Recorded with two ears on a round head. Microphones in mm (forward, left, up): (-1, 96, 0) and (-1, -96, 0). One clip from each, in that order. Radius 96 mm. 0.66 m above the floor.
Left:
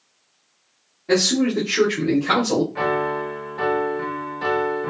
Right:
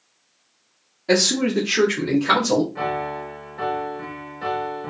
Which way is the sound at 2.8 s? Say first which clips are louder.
Left 4 dB; 20° left (ahead or behind).